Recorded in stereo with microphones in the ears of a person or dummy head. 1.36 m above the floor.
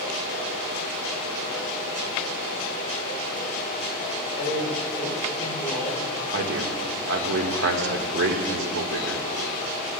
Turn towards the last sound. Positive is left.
turn(degrees=-60)  # may be behind; listen again after turning